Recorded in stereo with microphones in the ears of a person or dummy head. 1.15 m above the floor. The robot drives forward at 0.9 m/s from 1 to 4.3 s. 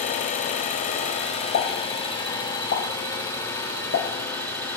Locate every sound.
0.0 s an engine running: 35° left (ahead or behind), 1.5 m; by 4.8 s 10° left (ahead or behind), 4 m
1.5 s a pop: 70° left (ahead or behind), 4 m; by 4.1 s 75° left (ahead or behind), 4 m